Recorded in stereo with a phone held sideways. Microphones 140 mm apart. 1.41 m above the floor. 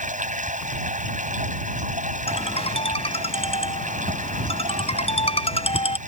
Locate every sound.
0.0 s running water: 65° right (ahead or behind)
2.3 s a ringtone: 45° left (ahead or behind)